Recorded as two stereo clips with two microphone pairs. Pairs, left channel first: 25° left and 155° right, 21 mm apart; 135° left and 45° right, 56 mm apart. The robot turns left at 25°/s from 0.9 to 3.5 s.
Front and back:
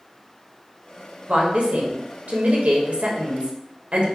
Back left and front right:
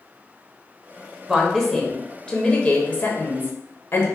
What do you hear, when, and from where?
1.3 s a woman speaking: 125° right, 1.0 m; by 4.1 s straight behind, 1.0 m